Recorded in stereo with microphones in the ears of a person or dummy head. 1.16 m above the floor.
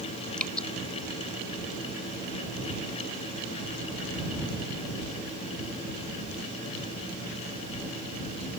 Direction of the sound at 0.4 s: 5° left (ahead or behind).